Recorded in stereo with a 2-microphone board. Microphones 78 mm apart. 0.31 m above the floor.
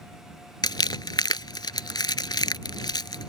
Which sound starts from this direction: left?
Crumpling, at 0.6 s.